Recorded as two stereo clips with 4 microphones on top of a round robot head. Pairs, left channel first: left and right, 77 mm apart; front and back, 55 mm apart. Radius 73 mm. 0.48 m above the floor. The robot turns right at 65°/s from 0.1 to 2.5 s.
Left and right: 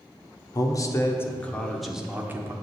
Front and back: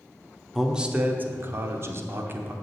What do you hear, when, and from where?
0.6 s a man speaking: 95° left, 1.1 m; by 2.5 s 135° right, 1.1 m